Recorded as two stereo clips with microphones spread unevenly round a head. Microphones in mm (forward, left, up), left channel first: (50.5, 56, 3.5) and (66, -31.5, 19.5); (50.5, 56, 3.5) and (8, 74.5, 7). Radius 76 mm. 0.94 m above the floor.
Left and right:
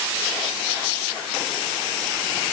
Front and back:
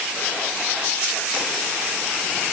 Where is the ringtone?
No ringtone in this recording.